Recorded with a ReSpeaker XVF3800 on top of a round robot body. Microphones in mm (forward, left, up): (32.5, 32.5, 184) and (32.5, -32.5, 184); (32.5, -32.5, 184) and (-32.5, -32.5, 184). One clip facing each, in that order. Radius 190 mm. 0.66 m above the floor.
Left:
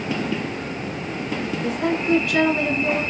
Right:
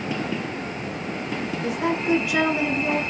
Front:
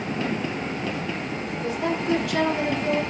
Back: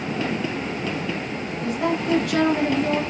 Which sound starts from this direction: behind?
A woman speaking, at 1.6 s.